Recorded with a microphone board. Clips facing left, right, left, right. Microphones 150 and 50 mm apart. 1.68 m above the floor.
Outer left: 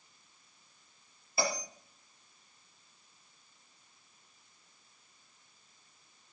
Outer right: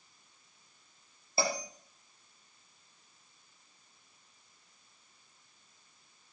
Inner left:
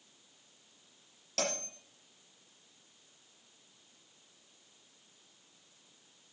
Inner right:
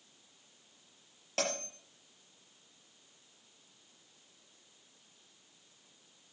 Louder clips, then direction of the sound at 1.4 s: Outer right 1 dB, inner right 1 dB; 30° right (ahead or behind).